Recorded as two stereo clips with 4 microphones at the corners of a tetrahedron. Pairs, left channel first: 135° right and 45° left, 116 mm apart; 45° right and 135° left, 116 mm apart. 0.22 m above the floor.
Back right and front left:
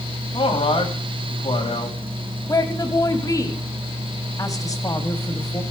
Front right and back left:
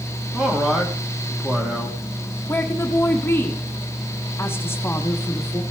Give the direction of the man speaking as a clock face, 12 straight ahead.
5 o'clock.